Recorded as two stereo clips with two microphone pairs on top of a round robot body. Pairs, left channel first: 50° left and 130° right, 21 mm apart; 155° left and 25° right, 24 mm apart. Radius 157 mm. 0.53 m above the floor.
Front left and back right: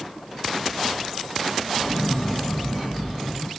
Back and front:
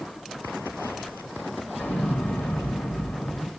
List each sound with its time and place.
1.8 s an explosion: 135° left, 1.5 m